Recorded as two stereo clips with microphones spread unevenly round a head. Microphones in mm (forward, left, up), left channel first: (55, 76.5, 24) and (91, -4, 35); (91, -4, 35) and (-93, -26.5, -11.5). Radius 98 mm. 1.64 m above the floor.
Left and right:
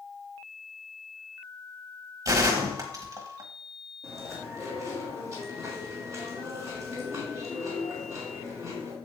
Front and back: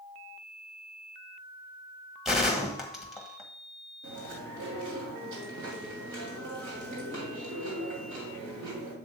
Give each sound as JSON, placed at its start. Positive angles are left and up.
{"t": 2.2, "sound": "a gunshot", "azimuth_deg": -70, "distance_m": 1.2}
{"t": 4.0, "sound": "chewing", "azimuth_deg": -155, "distance_m": 2.5}